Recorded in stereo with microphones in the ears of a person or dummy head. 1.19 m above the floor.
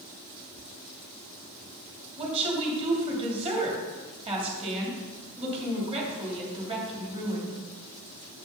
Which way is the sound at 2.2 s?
30° right (ahead or behind).